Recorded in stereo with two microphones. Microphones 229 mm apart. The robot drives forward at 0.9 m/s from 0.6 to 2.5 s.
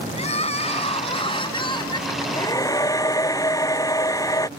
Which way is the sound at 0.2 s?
30° left (ahead or behind).